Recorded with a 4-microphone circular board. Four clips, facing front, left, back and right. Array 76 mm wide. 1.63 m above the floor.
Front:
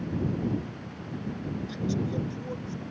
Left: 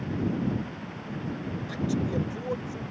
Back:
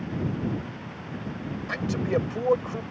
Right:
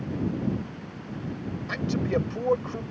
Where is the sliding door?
No sliding door in this recording.